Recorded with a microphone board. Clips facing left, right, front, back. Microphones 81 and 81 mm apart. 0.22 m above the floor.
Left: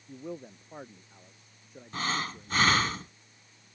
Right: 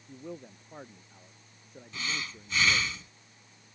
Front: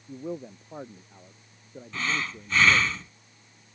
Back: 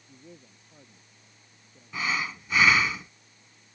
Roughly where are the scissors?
I don't hear scissors.